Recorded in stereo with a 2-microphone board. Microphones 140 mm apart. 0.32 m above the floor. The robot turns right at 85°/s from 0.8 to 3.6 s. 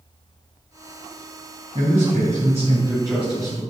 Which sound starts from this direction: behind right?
A man speaking, at 1.8 s.